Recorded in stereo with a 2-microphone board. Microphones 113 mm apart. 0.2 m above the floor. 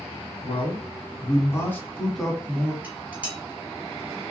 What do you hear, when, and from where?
0.4 s a man speaking: 55° left (ahead or behind), 1.6 m; by 2.7 s 15° right (ahead or behind), 1.4 m
2.8 s dishes clattering: 15° right (ahead or behind), 1.2 m